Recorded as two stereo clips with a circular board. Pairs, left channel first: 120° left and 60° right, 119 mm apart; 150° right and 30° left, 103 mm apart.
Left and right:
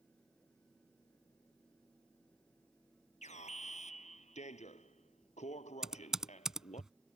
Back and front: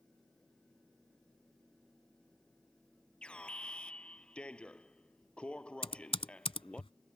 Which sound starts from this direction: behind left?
An alarm, at 3.2 s.